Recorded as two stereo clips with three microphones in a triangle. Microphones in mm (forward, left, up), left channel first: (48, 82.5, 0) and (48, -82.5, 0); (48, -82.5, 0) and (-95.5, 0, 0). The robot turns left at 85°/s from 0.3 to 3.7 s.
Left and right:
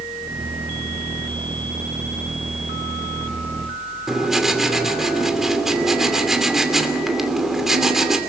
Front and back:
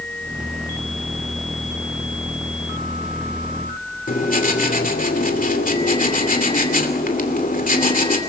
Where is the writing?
5° right, 2.5 m.